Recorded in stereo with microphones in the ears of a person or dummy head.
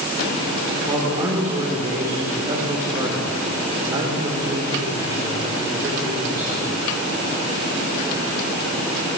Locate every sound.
0.9 s a man speaking: 30° right (ahead or behind), 4 m